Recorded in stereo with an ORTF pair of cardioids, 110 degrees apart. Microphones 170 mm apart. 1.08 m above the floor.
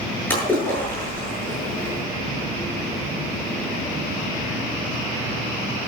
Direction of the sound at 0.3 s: 10° left.